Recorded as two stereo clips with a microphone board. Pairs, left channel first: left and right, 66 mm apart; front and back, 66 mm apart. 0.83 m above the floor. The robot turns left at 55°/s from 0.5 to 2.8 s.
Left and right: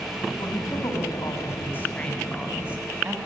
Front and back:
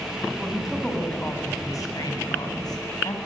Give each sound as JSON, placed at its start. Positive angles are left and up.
{"t": 0.4, "sound": "a woman speaking", "azimuth_deg": 105, "distance_m": 6.0}